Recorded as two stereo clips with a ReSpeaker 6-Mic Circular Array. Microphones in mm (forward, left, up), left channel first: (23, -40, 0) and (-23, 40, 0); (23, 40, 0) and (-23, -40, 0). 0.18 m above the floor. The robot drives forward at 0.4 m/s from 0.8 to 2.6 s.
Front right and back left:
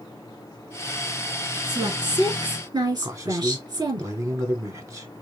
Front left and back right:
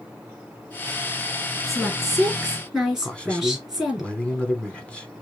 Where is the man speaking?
130° left, 1.2 m.